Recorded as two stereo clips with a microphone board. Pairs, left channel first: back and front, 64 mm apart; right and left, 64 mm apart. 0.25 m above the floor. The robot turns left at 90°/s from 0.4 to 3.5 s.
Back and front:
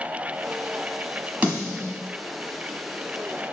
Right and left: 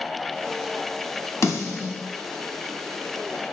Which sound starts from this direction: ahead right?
A snare drum, at 1.4 s.